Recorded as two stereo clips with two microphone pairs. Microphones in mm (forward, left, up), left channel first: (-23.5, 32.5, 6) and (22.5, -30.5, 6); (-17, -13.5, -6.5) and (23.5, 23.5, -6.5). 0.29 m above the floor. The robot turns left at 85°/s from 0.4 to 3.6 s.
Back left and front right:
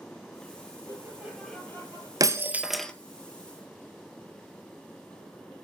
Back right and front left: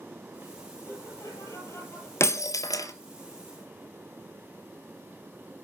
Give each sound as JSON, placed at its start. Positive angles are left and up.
{"t": 0.8, "sound": "laughter", "azimuth_deg": -95, "distance_m": 6.5}
{"t": 2.2, "sound": "breaking glass", "azimuth_deg": -95, "distance_m": 0.9}